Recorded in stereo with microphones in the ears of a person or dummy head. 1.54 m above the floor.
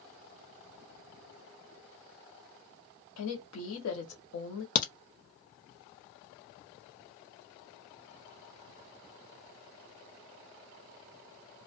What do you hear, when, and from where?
3.2 s a woman speaking: 75° left (ahead or behind), 0.9 m
4.8 s a crack: 45° left (ahead or behind), 0.6 m